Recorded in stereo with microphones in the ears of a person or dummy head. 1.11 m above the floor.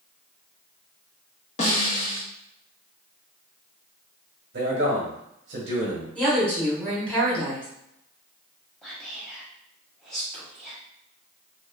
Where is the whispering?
Centre (ahead or behind), 1.0 m.